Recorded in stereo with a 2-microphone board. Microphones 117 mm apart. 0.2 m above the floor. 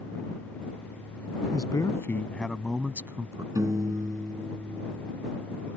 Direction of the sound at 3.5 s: 30° right (ahead or behind).